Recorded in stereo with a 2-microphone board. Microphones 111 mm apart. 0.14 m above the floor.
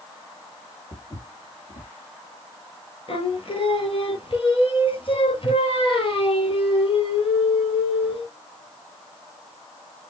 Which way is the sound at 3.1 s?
55° left (ahead or behind).